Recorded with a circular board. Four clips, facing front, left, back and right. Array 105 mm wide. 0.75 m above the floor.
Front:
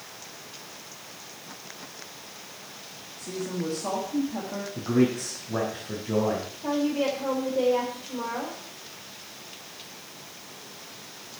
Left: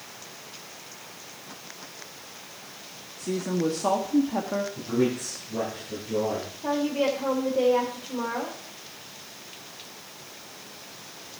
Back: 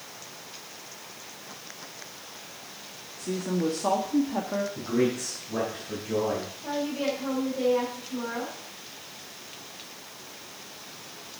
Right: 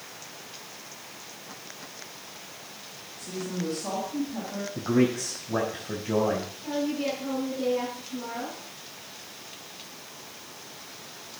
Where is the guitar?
I don't hear a guitar.